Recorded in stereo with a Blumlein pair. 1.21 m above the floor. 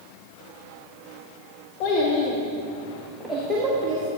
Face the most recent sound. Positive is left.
turn(degrees=-25)